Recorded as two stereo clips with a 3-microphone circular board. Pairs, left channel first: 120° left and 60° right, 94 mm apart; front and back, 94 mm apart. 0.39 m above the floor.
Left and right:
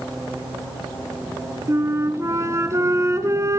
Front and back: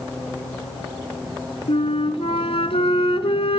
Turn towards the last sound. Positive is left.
turn(degrees=0)